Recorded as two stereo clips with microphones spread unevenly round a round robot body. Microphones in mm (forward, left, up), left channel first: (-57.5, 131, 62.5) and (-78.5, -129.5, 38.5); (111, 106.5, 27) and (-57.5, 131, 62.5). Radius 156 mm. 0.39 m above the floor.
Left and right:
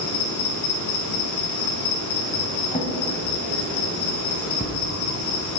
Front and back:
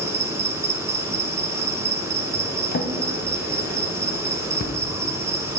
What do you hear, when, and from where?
0.0 s an insect: 95° left, 1.8 m
2.7 s a drawer: 15° left, 1.2 m